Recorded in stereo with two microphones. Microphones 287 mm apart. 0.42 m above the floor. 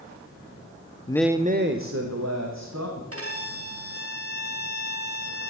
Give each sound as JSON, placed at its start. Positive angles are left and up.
{"t": 1.1, "sound": "a man speaking", "side_deg": 20, "distance_m": 0.8}
{"t": 3.1, "sound": "a violin", "side_deg": -50, "distance_m": 3.0}